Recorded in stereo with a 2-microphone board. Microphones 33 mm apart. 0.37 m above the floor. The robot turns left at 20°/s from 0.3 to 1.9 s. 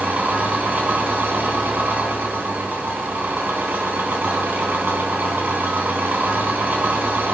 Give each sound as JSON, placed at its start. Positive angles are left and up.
{"t": 0.0, "sound": "an engine running", "azimuth_deg": -65, "distance_m": 3.0}